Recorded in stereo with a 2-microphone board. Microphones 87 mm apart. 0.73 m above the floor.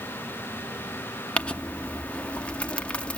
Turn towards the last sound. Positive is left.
turn(degrees=15)  # may be behind; listen again after turning